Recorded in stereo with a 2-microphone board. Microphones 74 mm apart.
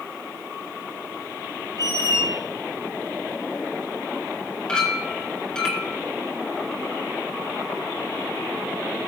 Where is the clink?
10° left (ahead or behind), 4.5 m.